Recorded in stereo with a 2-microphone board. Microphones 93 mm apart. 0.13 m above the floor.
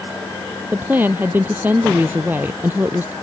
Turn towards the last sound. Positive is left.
turn(degrees=-20)  # may be behind; listen again after turning